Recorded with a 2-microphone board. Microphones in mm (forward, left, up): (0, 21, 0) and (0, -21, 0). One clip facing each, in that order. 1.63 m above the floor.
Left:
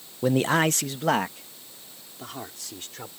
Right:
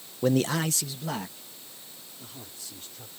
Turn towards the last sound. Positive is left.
turn(degrees=85)